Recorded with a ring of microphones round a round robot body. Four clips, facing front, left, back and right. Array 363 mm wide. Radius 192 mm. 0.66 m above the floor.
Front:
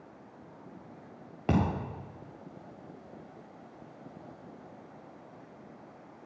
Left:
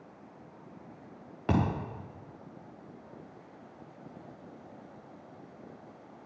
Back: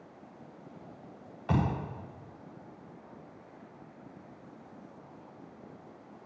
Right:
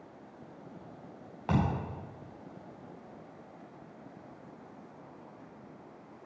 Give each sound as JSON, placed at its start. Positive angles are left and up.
{"t": 1.5, "sound": "a thud", "azimuth_deg": 30, "distance_m": 6.0}